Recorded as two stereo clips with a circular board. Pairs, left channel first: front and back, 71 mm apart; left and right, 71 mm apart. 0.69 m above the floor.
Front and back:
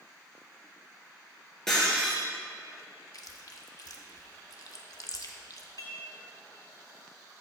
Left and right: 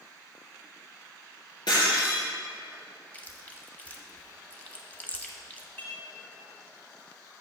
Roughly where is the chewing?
Ahead left.